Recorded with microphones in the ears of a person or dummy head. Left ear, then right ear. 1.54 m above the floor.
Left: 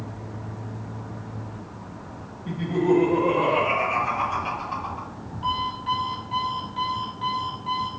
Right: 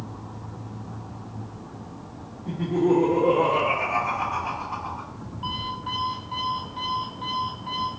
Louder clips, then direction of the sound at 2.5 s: Even; 45° left (ahead or behind).